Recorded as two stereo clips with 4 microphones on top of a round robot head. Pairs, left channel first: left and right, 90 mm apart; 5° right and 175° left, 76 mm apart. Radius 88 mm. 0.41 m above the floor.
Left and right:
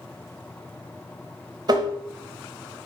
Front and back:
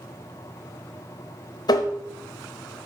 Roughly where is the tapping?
Ahead right.